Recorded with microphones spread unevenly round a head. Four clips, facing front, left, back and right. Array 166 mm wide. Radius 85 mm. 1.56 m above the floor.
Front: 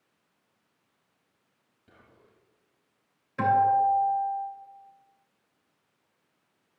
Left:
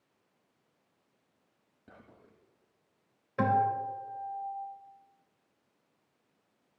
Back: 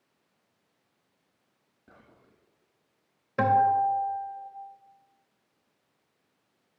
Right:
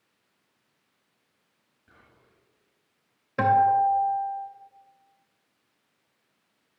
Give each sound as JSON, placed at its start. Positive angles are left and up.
{"t": 1.9, "sound": "whispering", "azimuth_deg": 115, "distance_m": 1.6}
{"t": 3.4, "sound": "a guitar", "azimuth_deg": -125, "distance_m": 3.0}